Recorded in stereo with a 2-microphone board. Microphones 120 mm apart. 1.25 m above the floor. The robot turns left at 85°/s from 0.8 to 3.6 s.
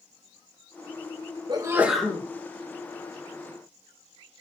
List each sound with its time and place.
1.5 s a sneeze: 140° right, 1.7 m; by 2.2 s 155° left, 1.7 m